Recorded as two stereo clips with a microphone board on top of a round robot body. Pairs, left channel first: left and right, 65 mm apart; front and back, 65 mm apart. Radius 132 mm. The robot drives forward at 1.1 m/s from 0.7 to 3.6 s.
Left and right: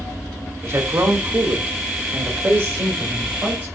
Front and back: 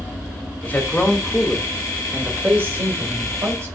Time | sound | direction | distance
0.6 | a man speaking | 55° right | 2 m